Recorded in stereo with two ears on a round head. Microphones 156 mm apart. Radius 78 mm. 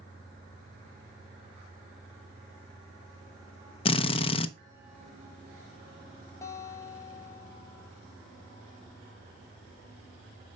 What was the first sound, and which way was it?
A drill, 30° left (ahead or behind).